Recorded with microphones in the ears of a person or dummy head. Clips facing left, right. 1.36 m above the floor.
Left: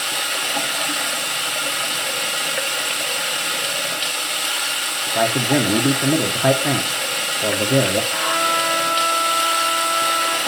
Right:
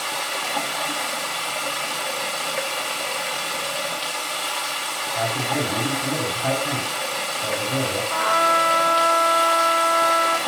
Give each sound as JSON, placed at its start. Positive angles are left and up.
{"t": 0.0, "sound": "running water", "side_deg": 15, "distance_m": 0.8}
{"t": 5.2, "sound": "a man speaking", "side_deg": 80, "distance_m": 1.1}
{"t": 8.1, "sound": "a trumpet", "side_deg": -50, "distance_m": 1.3}